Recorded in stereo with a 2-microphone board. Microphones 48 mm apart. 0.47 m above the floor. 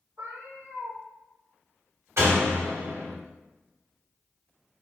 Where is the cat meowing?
85° right, 1.3 m.